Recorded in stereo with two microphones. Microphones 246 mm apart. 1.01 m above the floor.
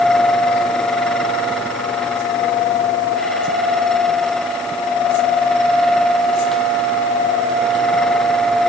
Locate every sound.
Only background noise.